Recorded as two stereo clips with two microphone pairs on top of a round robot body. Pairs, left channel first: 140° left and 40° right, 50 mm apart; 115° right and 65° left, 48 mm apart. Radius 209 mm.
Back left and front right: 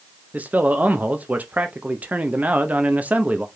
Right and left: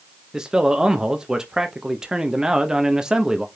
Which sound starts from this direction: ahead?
A man speaking, at 0.3 s.